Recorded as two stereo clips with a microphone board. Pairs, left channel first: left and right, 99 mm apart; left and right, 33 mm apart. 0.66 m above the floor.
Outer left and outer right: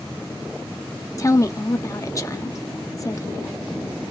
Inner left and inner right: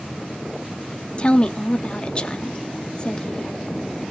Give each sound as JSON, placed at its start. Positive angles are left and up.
{"t": 1.2, "sound": "a woman speaking", "side_deg": 30, "distance_m": 0.8}